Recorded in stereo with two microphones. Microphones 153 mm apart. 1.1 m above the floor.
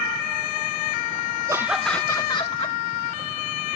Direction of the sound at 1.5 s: 20° right (ahead or behind).